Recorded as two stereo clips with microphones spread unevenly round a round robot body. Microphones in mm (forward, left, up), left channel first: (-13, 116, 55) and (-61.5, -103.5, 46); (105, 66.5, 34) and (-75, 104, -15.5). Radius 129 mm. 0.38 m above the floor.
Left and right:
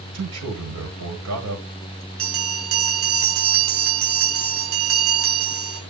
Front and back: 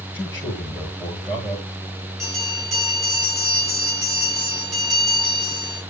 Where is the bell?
105° right, 4 m.